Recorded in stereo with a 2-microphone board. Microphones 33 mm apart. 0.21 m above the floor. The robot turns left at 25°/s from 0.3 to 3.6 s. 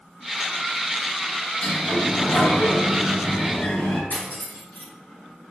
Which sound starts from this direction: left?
Cutlery clinking, at 4.1 s.